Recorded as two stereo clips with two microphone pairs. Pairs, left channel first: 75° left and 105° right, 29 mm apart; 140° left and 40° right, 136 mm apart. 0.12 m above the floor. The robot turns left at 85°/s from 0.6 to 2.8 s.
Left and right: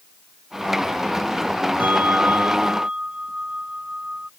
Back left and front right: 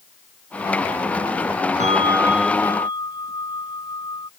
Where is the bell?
75° right; by 4.3 s 160° right.